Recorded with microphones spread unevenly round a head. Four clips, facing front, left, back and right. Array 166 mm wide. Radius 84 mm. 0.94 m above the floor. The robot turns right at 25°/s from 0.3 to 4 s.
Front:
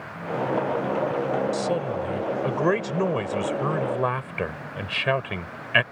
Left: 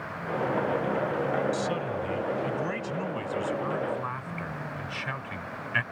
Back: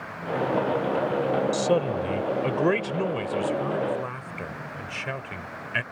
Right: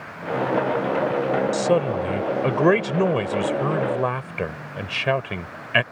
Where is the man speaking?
120° right; by 5.8 s 60° right.